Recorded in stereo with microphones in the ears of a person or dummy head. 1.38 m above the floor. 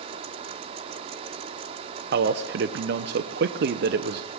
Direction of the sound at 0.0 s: 35° right (ahead or behind).